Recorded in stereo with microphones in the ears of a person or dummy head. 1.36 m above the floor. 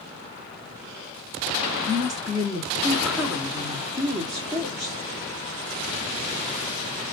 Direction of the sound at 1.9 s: Centre (ahead or behind).